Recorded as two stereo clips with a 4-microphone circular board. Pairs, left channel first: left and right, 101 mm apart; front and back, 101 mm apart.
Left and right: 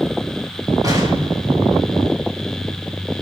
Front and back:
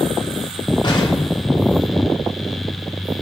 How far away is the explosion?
About 6.5 m.